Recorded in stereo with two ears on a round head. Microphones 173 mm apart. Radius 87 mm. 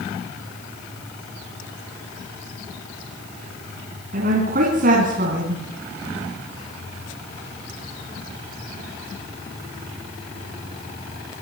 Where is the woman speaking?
45° right (ahead or behind), 4.5 m.